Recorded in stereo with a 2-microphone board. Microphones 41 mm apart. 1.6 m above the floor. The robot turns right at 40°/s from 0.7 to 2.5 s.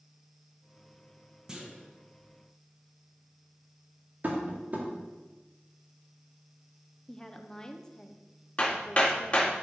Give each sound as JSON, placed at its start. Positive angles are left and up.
{"t": 1.5, "sound": "a clunk", "side_deg": -15, "distance_m": 1.3}
{"t": 4.2, "sound": "tapping", "side_deg": -40, "distance_m": 1.7}
{"t": 7.1, "sound": "a woman speaking", "side_deg": 15, "distance_m": 0.8}
{"t": 8.6, "sound": "hammering", "side_deg": 35, "distance_m": 2.0}